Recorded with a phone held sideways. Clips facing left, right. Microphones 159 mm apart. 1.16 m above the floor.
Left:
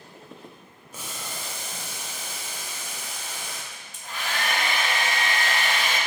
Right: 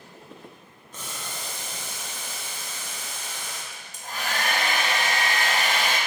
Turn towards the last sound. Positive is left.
turn(degrees=-40)  # may be behind; listen again after turning